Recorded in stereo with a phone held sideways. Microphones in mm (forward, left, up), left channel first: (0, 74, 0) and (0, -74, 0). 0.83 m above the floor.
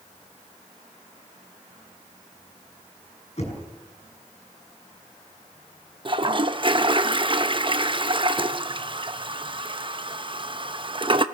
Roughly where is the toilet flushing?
Right.